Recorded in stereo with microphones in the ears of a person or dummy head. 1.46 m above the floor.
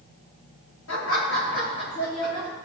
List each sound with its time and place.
0.9 s laughter: 70° left (ahead or behind), 4.5 m; by 2.5 s 55° left (ahead or behind), 4 m